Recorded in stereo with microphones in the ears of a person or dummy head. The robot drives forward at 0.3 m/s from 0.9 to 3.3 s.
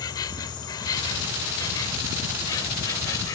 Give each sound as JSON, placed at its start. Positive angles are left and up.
{"t": 0.0, "sound": "an insect", "side_deg": 25}